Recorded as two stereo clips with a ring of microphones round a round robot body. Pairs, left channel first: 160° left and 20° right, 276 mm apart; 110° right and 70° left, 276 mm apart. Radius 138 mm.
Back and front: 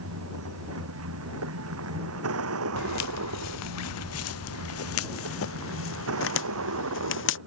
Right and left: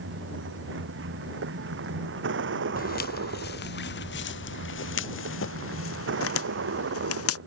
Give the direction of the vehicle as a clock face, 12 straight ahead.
11 o'clock.